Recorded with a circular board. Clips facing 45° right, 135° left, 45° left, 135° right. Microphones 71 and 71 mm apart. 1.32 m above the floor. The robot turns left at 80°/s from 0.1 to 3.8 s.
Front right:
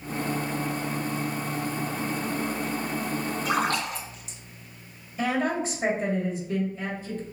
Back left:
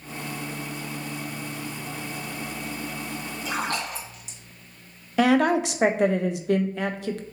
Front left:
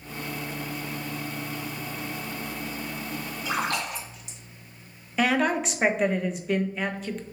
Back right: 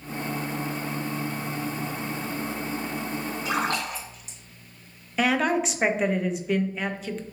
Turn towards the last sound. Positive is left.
turn(degrees=135)